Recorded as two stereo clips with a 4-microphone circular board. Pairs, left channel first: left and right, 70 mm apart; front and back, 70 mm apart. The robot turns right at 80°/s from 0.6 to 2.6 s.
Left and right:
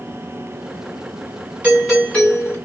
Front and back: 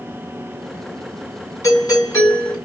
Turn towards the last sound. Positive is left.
turn(degrees=55)